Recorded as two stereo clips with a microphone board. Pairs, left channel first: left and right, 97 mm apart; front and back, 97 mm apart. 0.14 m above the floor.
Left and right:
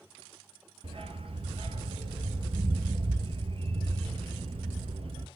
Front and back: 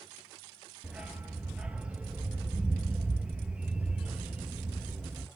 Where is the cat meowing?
No cat meowing in this recording.